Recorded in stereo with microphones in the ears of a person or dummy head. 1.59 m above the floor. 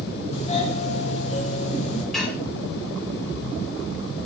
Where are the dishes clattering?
Centre (ahead or behind), 3 m.